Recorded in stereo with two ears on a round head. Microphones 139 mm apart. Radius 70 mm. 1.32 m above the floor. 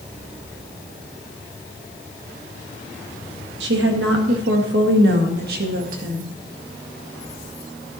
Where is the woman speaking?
85° right, 1.9 m; by 6.3 s 55° right (ahead or behind), 2 m.